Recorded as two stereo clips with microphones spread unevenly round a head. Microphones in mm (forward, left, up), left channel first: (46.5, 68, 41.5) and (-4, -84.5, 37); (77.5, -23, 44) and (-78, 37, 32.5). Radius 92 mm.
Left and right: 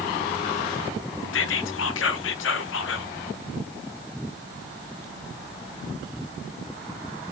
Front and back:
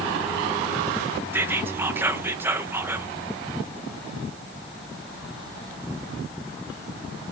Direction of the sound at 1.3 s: 80° left.